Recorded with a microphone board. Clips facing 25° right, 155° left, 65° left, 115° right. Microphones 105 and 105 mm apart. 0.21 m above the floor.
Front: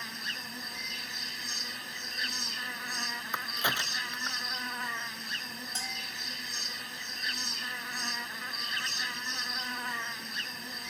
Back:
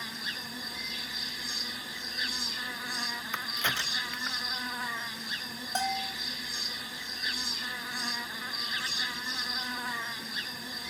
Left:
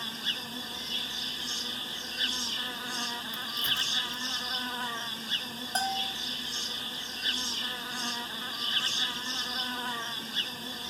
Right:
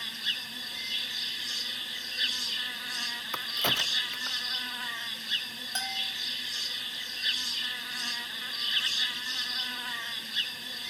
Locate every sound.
0.0 s an insect: 75° left
3.3 s a crack: 100° right
5.8 s a bell: 120° left